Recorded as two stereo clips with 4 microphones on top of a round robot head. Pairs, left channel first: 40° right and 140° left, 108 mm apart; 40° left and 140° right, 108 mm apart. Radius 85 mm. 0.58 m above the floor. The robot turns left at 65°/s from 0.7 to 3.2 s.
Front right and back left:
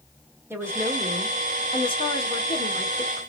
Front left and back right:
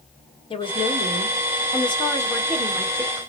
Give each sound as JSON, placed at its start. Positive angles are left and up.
{"t": 0.5, "sound": "a woman speaking", "azimuth_deg": 75, "distance_m": 1.6}